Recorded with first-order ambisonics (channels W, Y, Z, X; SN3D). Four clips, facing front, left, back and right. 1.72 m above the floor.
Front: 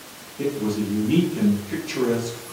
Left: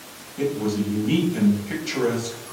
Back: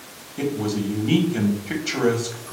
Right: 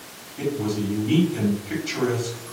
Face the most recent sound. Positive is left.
turn(degrees=175)